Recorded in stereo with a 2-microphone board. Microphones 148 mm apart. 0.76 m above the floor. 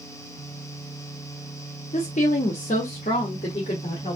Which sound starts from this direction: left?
A woman speaking, at 1.9 s.